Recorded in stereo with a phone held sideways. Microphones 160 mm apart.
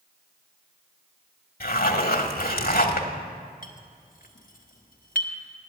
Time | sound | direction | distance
1.6 | a zipper | 65° left (ahead or behind) | 1.0 m
3.6 | a clink | 60° left (ahead or behind) | 1.1 m